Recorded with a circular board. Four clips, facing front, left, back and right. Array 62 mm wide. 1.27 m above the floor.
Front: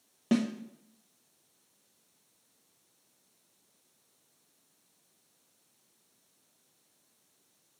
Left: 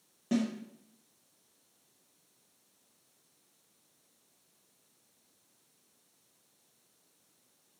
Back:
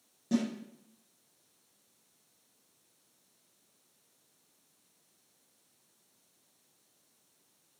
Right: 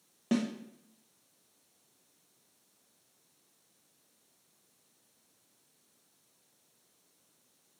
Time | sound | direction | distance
0.3 | a snare drum | 25° right | 1.0 m